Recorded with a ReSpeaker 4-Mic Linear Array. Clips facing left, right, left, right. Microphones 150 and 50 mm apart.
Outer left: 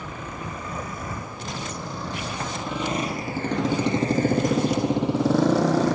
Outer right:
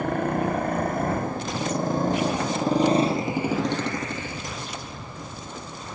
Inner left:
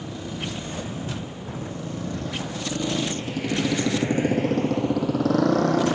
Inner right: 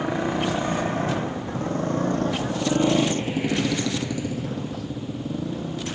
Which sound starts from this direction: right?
A motorcycle, at 0.0 s.